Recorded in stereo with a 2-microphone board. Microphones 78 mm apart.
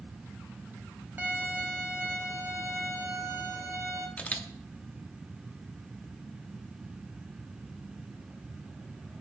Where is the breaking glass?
No breaking glass in this recording.